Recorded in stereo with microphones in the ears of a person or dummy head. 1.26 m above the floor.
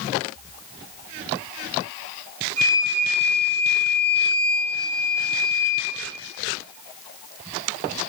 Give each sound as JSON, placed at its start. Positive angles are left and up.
{"t": 2.6, "sound": "a flute", "side_deg": -25, "distance_m": 0.7}